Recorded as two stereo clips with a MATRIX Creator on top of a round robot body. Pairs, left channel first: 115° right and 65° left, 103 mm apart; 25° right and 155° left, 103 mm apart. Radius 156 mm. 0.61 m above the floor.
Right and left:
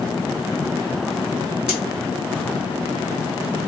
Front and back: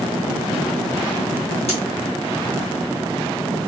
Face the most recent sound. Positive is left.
turn(degrees=-15)